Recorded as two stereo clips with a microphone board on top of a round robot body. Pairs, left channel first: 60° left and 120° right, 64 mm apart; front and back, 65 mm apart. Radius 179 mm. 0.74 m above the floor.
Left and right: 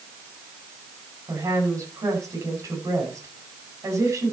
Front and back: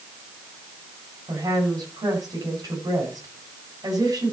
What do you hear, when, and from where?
1.3 s a woman speaking: 155° right, 5.5 m